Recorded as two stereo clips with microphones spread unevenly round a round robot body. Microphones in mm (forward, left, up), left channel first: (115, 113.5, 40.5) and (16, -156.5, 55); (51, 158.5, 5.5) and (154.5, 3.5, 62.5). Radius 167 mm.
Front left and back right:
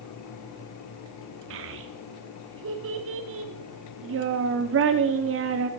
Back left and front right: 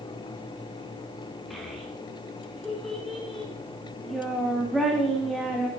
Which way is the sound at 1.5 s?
160° right.